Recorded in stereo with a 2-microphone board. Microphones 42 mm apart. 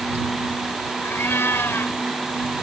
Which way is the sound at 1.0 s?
75° left (ahead or behind).